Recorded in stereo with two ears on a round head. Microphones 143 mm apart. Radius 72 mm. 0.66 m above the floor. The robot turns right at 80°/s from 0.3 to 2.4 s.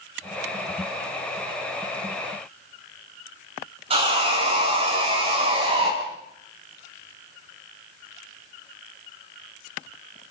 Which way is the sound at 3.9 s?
40° right (ahead or behind).